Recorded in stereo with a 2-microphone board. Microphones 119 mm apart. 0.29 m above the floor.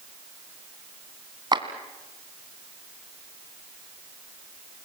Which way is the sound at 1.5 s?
35° right (ahead or behind).